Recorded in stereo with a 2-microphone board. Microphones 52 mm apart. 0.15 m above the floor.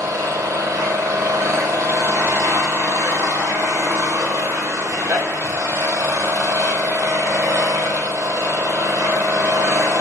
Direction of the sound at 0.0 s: 80° right.